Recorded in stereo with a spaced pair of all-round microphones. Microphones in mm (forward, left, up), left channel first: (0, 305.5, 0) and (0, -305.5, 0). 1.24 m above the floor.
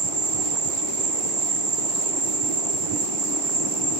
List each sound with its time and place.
0.0 s an insect: 55° right (ahead or behind), 1.1 m